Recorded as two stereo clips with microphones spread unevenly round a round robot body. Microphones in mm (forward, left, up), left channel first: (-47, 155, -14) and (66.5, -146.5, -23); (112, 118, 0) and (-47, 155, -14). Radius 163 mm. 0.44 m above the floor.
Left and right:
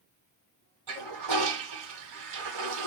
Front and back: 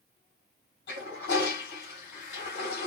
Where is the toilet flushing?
40° right, 1.6 m.